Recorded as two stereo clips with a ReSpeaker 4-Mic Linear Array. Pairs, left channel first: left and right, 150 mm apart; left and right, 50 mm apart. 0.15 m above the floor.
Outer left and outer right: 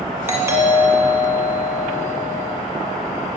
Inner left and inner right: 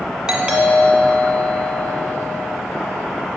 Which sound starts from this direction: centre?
A doorbell, at 0.3 s.